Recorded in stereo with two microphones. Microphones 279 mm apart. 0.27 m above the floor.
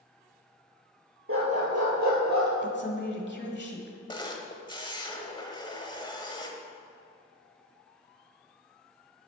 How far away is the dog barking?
About 1.9 m.